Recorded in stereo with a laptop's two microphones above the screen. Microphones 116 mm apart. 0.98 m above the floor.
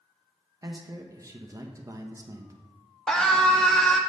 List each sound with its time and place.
0.6 s a man speaking: 30° right (ahead or behind), 1.1 m
3.1 s a scream: 5° left (ahead or behind), 1.4 m